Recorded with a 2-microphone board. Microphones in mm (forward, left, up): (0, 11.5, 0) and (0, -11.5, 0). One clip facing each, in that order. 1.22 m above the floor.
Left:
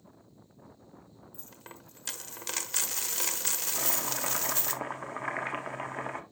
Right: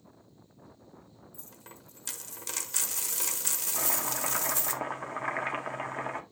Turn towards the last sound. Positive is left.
turn(degrees=5)  # may be behind; listen again after turning